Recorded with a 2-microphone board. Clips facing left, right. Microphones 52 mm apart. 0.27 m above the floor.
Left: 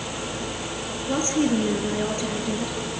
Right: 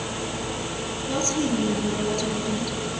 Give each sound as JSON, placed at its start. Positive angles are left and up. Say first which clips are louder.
{"t": 1.1, "sound": "a woman speaking", "louder": "left 3 dB", "side_deg": 20, "distance_m": 4.0}